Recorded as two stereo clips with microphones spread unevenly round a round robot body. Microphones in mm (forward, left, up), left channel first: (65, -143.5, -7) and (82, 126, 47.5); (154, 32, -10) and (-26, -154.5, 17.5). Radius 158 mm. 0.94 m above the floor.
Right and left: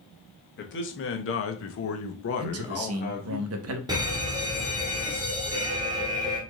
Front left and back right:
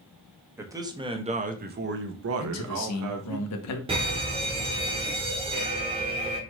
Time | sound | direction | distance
0.6 | a man speaking | 50° right | 1.4 m
2.4 | a man speaking | 50° left | 1.0 m
3.9 | a fire alarm | 170° left | 1.3 m